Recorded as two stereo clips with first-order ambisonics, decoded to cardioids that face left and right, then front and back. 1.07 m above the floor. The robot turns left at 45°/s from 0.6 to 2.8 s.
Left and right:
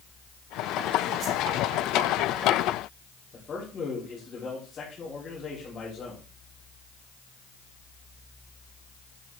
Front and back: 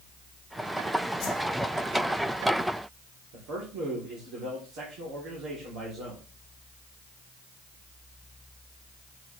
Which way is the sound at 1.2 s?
30° right.